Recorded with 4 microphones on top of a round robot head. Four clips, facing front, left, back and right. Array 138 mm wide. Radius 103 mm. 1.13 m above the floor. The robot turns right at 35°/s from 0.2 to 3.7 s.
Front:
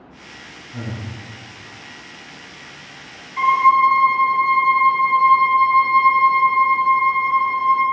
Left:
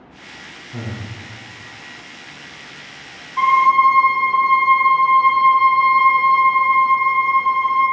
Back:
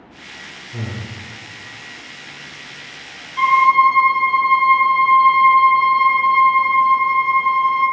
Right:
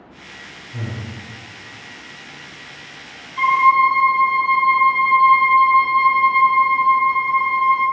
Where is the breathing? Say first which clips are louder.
Left 1 dB, back 1 dB; 115° left, 1.8 m; by 1.1 s 130° left, 1.8 m.